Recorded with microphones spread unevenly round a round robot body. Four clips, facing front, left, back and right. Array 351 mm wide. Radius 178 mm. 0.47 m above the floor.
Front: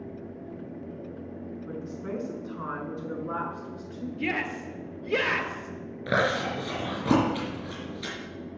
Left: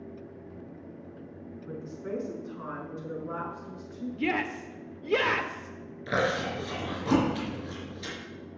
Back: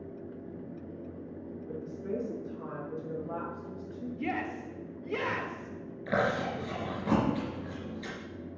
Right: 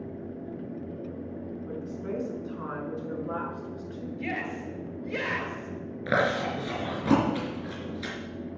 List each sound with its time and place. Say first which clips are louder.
1.7 s a woman speaking: even, front 1 dB; 10° right, 5 m; by 4.1 s 15° right, 7.5 m
4.2 s a shout: left 5 dB, front 3 dB; 85° left, 1.4 m
6.1 s chewing: right 2 dB, front 3 dB; 40° right, 4 m